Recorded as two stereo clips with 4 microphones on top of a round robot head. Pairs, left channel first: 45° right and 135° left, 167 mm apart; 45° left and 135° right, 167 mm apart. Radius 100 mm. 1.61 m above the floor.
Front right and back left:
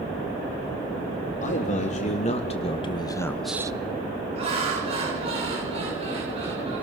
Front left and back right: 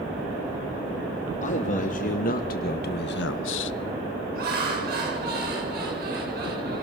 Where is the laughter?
170° right, 7.5 m.